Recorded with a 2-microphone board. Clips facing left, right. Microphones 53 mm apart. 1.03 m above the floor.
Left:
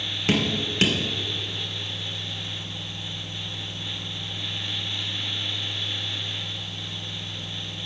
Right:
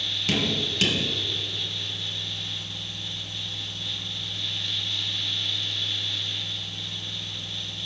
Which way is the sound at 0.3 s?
30° left (ahead or behind).